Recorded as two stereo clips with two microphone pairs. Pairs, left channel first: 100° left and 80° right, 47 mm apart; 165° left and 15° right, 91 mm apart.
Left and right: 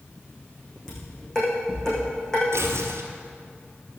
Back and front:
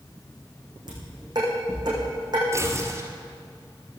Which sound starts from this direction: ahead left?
Dishes clattering, at 0.9 s.